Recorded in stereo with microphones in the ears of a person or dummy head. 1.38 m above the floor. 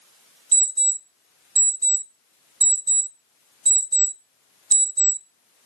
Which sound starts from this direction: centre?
An alarm clock, at 0.5 s.